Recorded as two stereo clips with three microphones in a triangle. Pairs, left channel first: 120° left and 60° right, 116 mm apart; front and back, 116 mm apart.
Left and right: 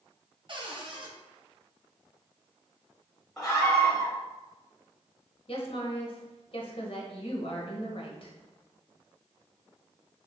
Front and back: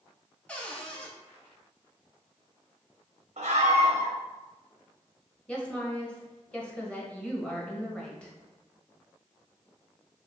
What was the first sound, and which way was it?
A cupboard door, 75° right.